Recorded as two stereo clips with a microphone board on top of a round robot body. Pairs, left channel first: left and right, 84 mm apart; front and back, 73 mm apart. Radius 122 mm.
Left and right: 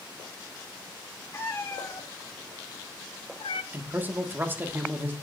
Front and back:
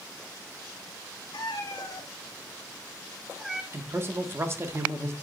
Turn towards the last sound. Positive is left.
turn(degrees=-145)